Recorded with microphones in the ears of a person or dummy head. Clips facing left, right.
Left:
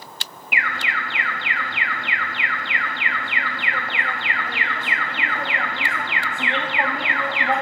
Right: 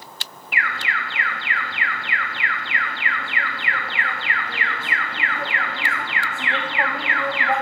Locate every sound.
0.5 s an alarm: 15° left (ahead or behind), 1.4 m